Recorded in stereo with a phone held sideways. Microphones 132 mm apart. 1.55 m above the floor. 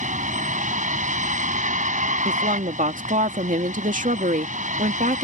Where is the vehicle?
70° right (ahead or behind).